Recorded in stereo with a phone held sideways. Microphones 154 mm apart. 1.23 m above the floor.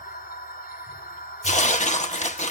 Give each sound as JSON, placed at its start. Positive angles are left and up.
{"t": 0.0, "sound": "a machine running", "side_deg": 75, "distance_m": 3.5}
{"t": 1.4, "sound": "tearing paper", "side_deg": 50, "distance_m": 0.9}